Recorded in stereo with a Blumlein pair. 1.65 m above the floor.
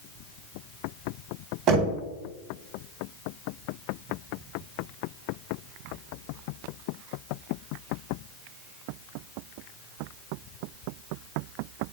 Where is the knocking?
35° right, 2 m.